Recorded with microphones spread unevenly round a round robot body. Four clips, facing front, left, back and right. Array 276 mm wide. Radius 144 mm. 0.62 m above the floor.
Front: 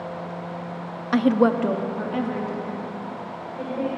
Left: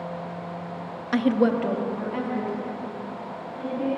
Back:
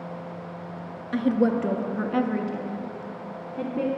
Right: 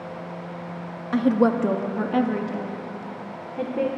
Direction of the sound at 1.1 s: 5° left.